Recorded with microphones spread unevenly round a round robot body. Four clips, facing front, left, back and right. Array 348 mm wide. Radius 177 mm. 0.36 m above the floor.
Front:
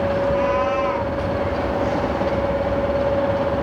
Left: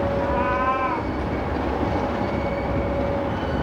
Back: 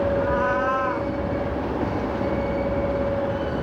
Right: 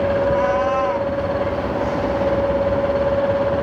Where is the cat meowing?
140° right, 1.2 m.